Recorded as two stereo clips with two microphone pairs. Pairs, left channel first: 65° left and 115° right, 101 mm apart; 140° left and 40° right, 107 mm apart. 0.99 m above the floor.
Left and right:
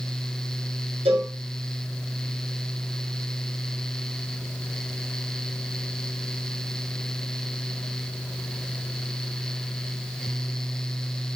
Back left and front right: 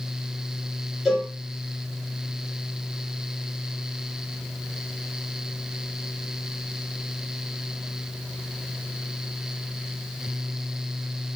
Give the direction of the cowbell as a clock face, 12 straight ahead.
4 o'clock.